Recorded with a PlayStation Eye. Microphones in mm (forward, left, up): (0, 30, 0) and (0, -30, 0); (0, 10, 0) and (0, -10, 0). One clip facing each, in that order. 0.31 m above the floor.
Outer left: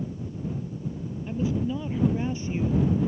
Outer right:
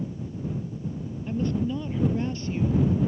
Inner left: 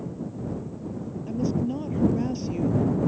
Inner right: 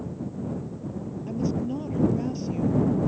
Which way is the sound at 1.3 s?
Centre (ahead or behind).